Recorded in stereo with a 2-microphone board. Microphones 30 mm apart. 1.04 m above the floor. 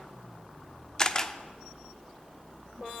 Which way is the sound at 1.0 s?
20° left (ahead or behind).